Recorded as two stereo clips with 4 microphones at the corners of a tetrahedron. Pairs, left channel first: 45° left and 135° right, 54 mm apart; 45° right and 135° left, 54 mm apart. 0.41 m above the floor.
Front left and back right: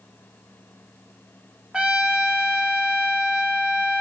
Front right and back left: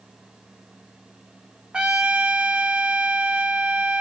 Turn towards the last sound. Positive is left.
turn(degrees=180)